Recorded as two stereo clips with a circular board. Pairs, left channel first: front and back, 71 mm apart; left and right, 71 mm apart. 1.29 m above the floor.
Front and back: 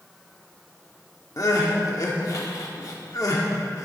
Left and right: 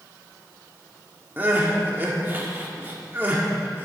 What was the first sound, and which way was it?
Crying, 30° right.